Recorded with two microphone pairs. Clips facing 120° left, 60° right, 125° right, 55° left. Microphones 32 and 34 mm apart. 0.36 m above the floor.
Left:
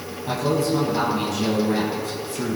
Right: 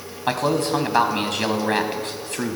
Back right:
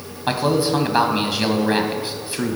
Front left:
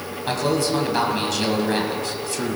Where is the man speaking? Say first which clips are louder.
Right 1 dB, back right 3 dB; 55° right, 1.9 m.